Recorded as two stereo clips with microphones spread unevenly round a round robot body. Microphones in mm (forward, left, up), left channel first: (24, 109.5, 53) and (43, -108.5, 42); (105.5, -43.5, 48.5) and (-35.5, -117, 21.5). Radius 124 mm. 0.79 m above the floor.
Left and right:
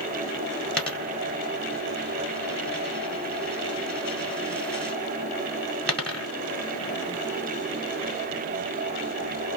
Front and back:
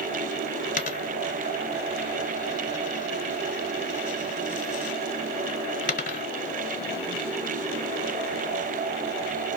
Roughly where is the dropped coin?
Ahead.